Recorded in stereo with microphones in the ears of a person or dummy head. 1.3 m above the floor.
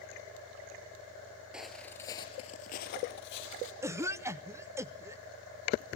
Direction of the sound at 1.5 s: 5° right (ahead or behind).